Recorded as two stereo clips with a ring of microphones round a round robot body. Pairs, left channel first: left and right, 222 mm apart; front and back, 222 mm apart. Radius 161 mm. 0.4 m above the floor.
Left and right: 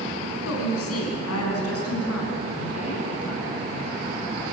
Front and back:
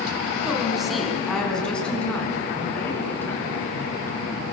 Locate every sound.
0.5 s a woman speaking: 95° left, 4.5 m; by 4.2 s 80° left, 7.5 m